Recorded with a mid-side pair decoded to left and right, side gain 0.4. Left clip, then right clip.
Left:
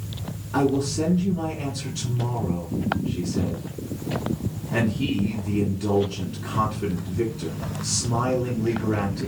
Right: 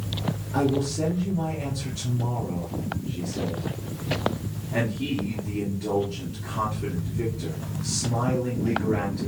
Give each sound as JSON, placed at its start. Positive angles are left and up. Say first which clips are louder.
{"t": 0.5, "sound": "a man speaking", "louder": "left 3 dB", "azimuth_deg": 65, "distance_m": 1.7}